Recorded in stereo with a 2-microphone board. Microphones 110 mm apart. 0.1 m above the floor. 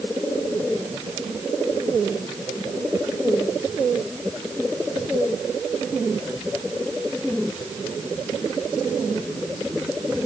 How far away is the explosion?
I don't hear an explosion.